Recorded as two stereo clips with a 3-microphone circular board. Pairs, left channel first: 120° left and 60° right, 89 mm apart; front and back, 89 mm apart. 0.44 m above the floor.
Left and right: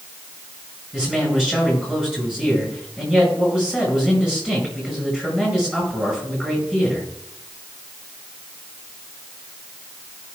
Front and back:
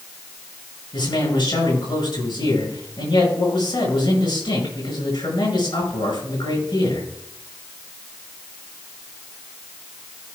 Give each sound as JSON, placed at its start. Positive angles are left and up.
{"t": 0.9, "sound": "a man speaking", "azimuth_deg": 20, "distance_m": 5.5}